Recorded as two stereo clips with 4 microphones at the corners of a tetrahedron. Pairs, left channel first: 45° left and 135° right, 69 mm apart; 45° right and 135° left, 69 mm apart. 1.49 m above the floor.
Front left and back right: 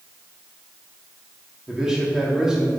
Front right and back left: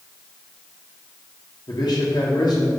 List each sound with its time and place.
1.7 s a man speaking: 55° right, 2.5 m